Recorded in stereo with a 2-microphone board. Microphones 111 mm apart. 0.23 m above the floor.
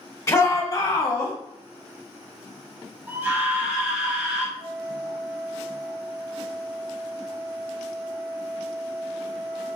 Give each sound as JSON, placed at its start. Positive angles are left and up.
{"t": 0.3, "sound": "a shout", "side_deg": 25, "distance_m": 1.4}
{"t": 3.1, "sound": "a scream", "side_deg": -20, "distance_m": 1.0}
{"t": 4.6, "sound": "a flute", "side_deg": -50, "distance_m": 2.5}